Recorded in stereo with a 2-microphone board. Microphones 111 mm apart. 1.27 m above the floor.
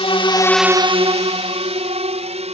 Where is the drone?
55° left (ahead or behind); by 2.5 s 70° right (ahead or behind).